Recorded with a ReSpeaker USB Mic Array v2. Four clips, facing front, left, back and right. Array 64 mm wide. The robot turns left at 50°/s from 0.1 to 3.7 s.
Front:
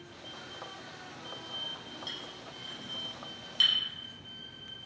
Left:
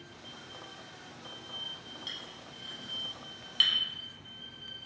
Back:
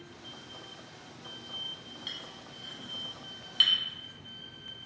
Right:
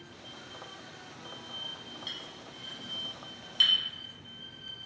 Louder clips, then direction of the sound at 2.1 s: Right 1 dB, front 1 dB; 150° right.